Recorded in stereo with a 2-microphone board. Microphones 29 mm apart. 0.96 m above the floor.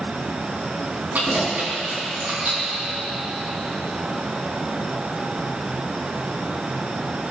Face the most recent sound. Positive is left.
turn(degrees=-85)